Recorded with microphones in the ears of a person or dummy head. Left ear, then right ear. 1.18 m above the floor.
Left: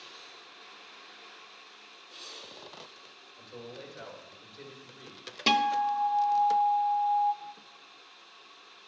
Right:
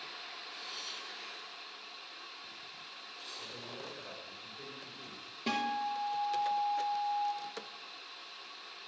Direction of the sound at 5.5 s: 40° left (ahead or behind).